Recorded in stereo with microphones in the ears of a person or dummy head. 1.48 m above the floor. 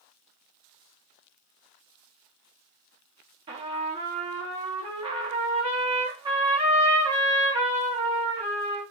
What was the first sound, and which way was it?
A trumpet, 25° right (ahead or behind).